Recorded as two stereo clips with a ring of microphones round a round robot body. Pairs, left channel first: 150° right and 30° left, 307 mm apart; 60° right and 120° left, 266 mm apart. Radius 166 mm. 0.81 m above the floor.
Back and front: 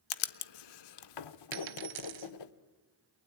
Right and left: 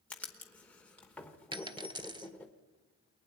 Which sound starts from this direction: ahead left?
A dropped coin, at 1.5 s.